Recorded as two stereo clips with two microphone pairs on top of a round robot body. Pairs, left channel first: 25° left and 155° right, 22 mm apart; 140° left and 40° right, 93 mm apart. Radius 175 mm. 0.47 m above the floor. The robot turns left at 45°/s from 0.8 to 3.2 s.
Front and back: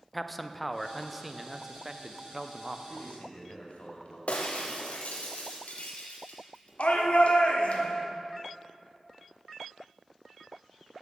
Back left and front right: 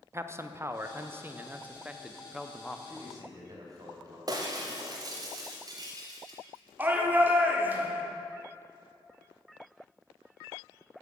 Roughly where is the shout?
Ahead left.